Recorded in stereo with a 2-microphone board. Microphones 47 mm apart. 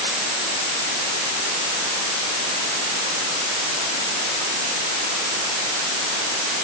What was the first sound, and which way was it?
Only background noise.